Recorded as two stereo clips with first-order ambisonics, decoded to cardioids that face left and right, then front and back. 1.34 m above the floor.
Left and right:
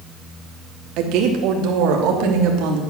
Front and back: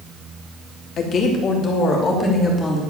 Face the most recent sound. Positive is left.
turn(degrees=-70)